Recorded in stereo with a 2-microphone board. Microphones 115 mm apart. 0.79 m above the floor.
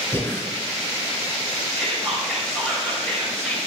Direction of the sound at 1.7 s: 5° left (ahead or behind).